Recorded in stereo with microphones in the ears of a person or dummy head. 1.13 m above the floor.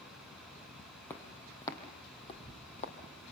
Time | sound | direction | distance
1.1 | footsteps | 10° left (ahead or behind) | 2.5 m